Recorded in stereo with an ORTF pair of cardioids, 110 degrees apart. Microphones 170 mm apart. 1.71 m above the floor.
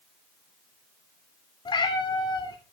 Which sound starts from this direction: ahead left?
A cat meowing, at 1.6 s.